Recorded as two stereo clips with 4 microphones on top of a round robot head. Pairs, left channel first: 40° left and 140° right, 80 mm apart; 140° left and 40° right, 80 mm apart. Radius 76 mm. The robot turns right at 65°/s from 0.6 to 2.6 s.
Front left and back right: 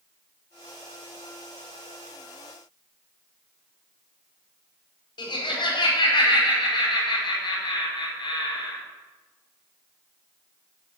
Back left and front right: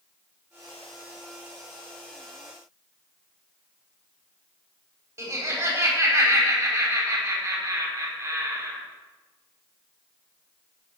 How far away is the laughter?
About 4 m.